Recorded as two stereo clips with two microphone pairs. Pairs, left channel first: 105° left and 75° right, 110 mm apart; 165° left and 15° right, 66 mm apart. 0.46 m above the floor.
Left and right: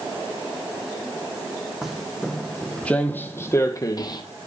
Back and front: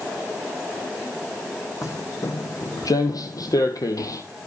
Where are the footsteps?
165° right, 1.6 m; by 4.2 s 145° left, 1.1 m.